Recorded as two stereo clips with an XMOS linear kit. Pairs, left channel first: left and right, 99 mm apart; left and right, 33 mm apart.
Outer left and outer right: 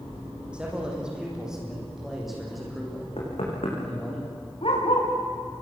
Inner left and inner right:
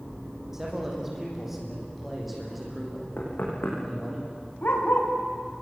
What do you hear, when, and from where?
0.5 s a man speaking: 10° right (ahead or behind), 7.5 m; by 4.2 s 5° left (ahead or behind), 9.5 m
3.2 s knocking: 75° left (ahead or behind), 8 m
4.6 s a dog barking: 65° left (ahead or behind), 6 m